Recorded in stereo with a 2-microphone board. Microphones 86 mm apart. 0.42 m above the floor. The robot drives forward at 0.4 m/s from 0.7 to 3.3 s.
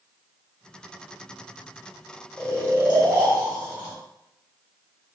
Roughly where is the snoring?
Centre.